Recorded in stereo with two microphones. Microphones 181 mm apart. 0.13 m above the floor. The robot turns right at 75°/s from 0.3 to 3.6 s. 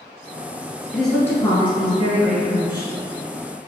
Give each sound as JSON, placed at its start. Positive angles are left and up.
{"t": 0.9, "sound": "a woman speaking", "azimuth_deg": -5, "distance_m": 1.3}